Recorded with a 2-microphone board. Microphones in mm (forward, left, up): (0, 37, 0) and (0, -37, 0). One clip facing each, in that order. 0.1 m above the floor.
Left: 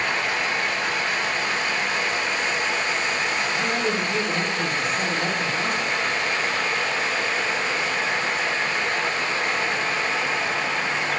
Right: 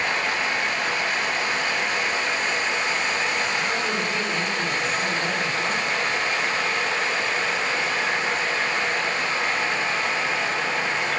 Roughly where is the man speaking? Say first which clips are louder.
Left 1 dB; left.